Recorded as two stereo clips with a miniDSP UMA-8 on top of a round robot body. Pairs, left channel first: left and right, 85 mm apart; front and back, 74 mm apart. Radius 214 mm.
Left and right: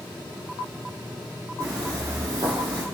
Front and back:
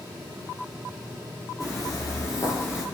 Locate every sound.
1.6 s footsteps: 40° right, 1.3 m; by 2.8 s 55° right, 0.8 m